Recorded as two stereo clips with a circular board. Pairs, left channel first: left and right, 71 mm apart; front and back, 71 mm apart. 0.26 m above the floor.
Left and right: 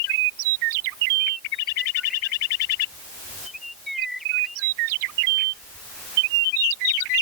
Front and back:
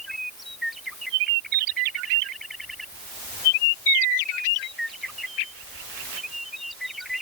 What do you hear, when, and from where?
Only background noise.